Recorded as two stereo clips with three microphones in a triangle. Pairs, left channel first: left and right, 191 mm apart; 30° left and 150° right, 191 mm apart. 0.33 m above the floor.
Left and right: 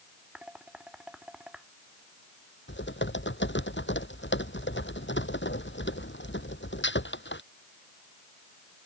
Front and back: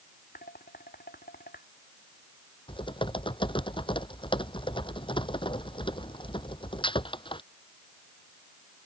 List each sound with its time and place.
0.3 s dishes clattering: 5° right
2.7 s typing on a keyboard: 95° left